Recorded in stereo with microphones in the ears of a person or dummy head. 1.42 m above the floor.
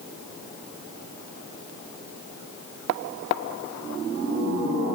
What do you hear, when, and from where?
Only background noise.